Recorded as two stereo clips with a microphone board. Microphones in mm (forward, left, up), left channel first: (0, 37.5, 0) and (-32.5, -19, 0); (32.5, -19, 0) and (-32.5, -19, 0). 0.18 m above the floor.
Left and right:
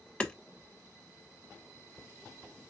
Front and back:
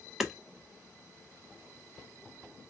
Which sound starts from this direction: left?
Hammering, at 0.2 s.